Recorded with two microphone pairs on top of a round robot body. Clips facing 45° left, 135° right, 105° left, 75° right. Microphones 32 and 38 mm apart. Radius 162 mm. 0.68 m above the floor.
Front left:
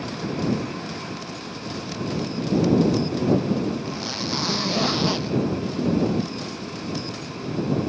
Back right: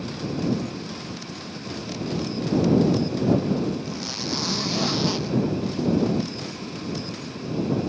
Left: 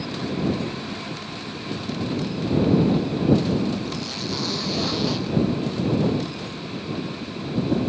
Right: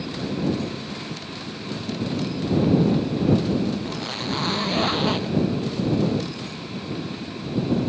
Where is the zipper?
35° right.